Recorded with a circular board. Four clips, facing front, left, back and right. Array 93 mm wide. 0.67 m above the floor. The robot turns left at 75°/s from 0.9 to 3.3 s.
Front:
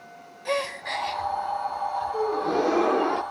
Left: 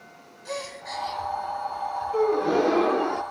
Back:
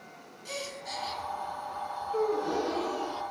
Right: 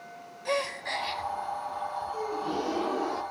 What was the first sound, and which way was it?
A gasp, 25° right.